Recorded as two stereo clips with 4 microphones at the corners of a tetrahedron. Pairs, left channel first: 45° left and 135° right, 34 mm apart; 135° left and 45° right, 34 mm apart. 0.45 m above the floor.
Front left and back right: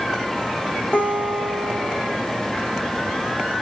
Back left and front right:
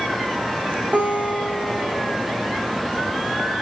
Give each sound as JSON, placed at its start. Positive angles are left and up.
{"t": 0.9, "sound": "a guitar", "azimuth_deg": 0, "distance_m": 7.0}